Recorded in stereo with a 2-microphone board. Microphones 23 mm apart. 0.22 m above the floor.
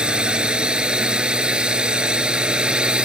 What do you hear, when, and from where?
0.0 s a drone: 40° right (ahead or behind)